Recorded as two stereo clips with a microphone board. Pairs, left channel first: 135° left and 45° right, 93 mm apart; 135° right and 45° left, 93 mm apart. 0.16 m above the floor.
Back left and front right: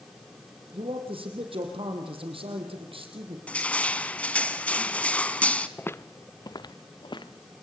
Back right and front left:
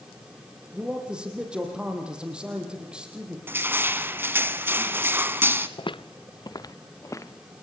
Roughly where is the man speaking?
Ahead right.